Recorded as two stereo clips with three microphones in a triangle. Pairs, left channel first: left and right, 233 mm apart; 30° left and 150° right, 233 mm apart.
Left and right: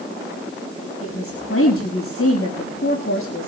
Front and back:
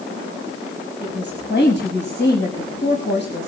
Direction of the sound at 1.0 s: 70° left.